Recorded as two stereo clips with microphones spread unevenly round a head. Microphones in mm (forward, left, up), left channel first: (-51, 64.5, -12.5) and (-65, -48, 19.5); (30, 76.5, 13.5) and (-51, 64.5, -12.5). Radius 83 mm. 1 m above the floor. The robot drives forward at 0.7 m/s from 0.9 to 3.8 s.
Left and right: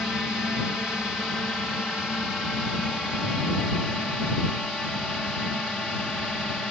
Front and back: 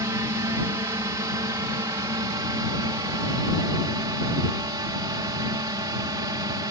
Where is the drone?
165° left; by 6.7 s 170° left.